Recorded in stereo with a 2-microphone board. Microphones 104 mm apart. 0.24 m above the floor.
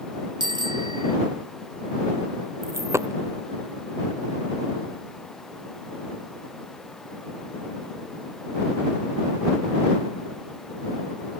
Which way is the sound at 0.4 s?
45° right (ahead or behind).